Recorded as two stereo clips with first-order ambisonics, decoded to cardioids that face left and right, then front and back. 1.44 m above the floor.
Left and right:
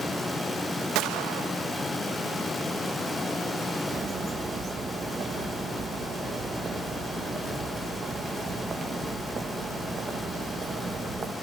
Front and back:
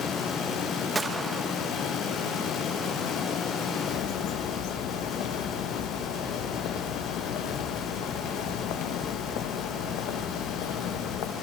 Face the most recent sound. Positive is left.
turn(degrees=-20)